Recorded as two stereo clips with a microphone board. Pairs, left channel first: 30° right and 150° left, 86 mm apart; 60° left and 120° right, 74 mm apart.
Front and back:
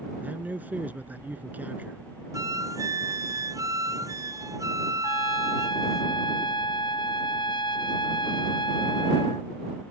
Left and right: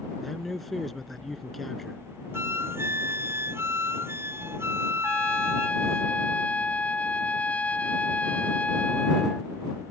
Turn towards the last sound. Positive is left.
turn(degrees=-10)